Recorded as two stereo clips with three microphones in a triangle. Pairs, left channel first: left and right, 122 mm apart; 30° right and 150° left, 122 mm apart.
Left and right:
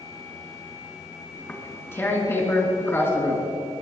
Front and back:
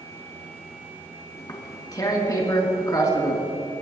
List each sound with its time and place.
1.4 s tearing paper: 25° left, 2.5 m